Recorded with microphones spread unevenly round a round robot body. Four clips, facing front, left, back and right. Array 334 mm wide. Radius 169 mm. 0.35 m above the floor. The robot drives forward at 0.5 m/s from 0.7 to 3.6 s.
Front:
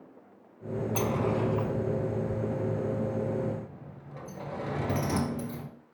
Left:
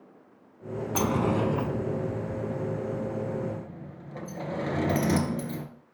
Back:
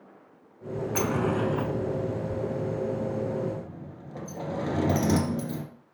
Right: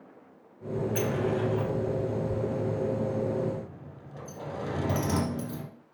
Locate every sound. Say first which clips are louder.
0.9 s a sliding door: left 4 dB, back 2 dB; 120° left, 0.9 m; by 5.7 s 155° left, 1.9 m